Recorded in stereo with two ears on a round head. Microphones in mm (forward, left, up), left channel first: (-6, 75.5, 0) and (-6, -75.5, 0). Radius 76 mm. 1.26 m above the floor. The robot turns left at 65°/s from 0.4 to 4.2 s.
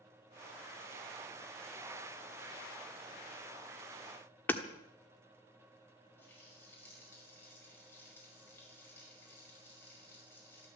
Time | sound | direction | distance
4.5 | hammering | 10° left (ahead or behind) | 1.3 m
6.2 | a running tap | 10° left (ahead or behind) | 5.5 m